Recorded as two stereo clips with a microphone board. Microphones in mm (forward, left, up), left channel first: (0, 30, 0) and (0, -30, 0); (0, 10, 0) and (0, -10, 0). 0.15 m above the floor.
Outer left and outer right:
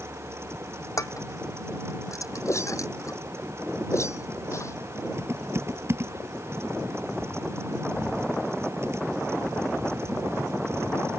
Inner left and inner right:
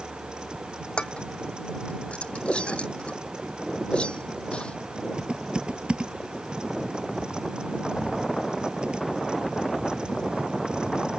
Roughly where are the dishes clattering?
Left.